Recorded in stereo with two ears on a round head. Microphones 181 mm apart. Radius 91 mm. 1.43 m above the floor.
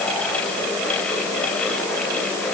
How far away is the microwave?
I don't hear a microwave.